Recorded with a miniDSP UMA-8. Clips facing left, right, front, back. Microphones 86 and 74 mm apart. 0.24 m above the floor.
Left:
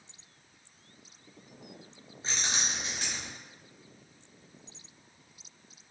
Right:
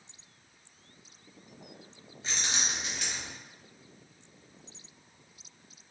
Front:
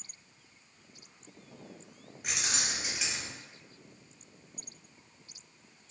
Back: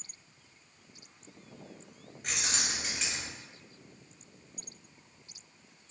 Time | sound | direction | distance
2.2 | keys jangling | 75° left | 0.7 m